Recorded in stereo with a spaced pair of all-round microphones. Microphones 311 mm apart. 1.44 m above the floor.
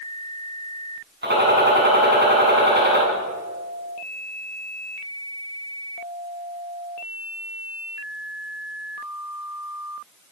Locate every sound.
1.2 s a gunshot: 35° right (ahead or behind), 9 m